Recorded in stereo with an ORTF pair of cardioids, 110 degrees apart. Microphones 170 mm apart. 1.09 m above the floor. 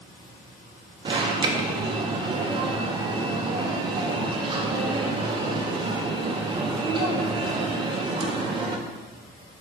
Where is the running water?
65° left, 1.5 m.